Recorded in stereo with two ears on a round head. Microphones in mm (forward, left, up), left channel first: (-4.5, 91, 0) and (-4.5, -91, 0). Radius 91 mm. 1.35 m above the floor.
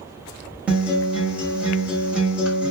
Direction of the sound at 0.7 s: 5° right (ahead or behind).